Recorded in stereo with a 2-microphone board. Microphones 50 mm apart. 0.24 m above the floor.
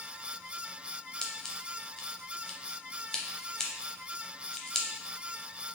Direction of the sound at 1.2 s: 15° left (ahead or behind).